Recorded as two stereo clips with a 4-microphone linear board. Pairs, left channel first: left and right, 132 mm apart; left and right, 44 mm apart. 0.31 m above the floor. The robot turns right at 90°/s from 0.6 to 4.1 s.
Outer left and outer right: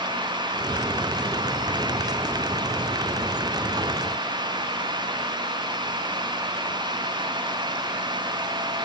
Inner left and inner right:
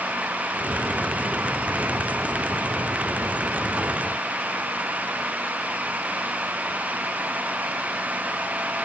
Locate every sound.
Only background noise.